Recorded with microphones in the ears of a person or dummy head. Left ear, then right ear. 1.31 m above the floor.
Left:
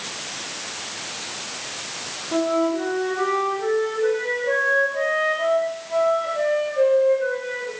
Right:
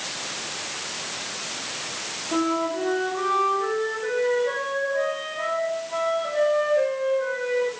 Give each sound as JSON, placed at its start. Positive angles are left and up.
{"t": 2.3, "sound": "a flute", "side_deg": -10, "distance_m": 3.0}